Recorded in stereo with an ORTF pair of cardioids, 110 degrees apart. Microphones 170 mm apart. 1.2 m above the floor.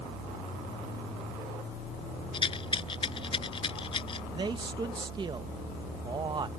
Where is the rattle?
35° left.